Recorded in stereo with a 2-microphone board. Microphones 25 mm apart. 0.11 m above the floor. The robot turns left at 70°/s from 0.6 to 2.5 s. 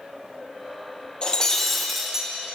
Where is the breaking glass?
40° left, 2 m; by 2.3 s 35° right, 2 m.